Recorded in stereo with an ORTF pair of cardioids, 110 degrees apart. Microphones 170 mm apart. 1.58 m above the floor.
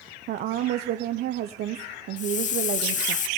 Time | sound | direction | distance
0.3 | a woman speaking | 65° right | 1.0 m
2.2 | a hiss | 45° left | 0.9 m